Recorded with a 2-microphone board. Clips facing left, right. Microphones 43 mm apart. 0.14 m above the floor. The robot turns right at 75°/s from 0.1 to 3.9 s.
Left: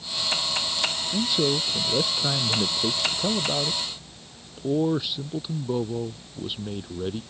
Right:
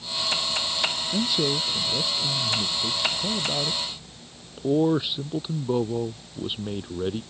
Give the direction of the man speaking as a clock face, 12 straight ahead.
12 o'clock.